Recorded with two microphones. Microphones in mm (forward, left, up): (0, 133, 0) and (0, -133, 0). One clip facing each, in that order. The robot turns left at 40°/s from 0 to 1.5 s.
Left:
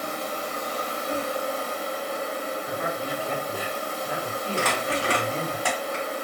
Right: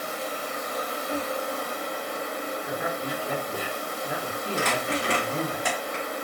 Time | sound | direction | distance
0.0 | an insect | 65° left | 1.3 m
2.7 | a man speaking | 15° right (ahead or behind) | 1.8 m
4.6 | crumpling | 20° right (ahead or behind) | 1.4 m